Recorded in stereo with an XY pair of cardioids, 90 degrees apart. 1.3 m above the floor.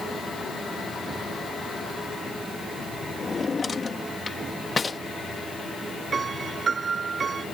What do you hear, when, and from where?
3.2 s a drawer: 35° left
6.1 s a piano: 45° right